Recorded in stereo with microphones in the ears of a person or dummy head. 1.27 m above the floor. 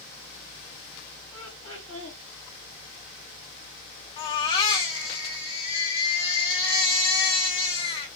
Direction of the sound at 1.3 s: 15° left (ahead or behind).